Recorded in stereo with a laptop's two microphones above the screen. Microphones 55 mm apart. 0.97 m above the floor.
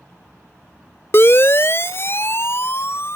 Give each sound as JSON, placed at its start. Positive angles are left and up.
{"t": 1.1, "sound": "a siren", "side_deg": 45}